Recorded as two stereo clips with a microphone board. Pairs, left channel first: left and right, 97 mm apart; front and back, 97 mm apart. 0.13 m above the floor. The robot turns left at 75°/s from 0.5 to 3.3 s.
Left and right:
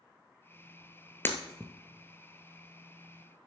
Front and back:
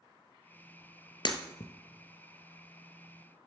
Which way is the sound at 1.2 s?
25° left.